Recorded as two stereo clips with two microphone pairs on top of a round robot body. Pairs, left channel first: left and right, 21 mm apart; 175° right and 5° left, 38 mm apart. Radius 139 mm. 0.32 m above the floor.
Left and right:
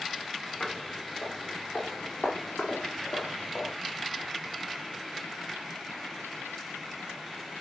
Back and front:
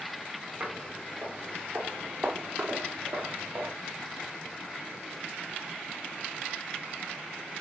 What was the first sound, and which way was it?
Footsteps, 45° left.